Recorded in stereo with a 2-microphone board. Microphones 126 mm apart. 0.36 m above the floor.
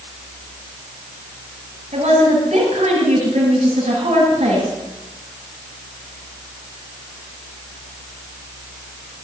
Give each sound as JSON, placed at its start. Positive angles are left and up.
{"t": 1.9, "sound": "a woman speaking", "side_deg": -75, "distance_m": 8.5}